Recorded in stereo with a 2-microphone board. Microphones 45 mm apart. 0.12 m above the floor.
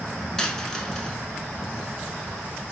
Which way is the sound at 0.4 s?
15° left (ahead or behind).